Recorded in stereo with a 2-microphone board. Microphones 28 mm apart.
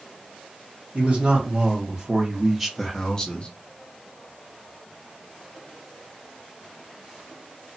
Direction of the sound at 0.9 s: 50° right (ahead or behind).